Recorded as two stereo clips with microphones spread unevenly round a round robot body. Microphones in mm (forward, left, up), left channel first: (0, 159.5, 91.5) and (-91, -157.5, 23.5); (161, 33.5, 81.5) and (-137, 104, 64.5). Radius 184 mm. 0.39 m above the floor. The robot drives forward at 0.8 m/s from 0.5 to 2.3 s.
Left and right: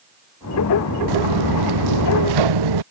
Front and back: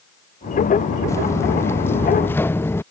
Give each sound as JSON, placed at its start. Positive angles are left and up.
{"t": 1.1, "sound": "footsteps", "azimuth_deg": -95}